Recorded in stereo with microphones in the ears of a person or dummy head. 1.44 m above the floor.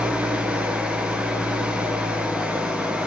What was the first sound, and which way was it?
An engine running, 5° right (ahead or behind).